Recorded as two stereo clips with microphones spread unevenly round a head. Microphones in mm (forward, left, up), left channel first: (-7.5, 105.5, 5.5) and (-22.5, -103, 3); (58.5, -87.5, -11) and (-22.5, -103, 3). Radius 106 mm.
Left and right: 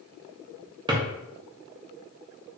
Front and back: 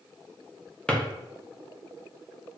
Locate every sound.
0.9 s a drawer: 75° right, 0.5 m